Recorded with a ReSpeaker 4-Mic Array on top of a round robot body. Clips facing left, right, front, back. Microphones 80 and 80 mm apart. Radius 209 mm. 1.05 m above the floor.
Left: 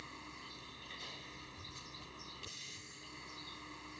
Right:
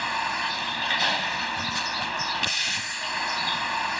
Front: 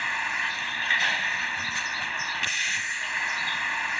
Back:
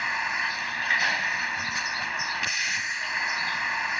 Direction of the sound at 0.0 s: 95° right.